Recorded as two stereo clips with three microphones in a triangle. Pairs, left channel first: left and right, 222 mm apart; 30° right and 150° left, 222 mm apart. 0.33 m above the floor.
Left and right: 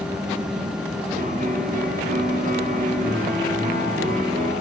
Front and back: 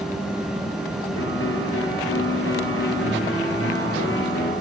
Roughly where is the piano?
Ahead right.